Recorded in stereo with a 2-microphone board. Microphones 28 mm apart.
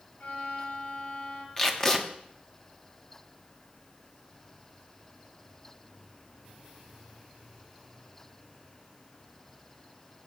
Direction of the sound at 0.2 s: 70° left (ahead or behind).